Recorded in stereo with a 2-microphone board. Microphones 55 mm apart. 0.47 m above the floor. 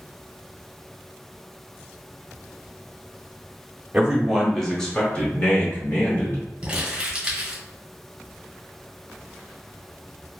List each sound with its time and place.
3.9 s a man speaking: 20° right (ahead or behind), 0.7 m; by 6.4 s 40° left (ahead or behind), 1.5 m
6.6 s crumpling: 20° right (ahead or behind), 1.2 m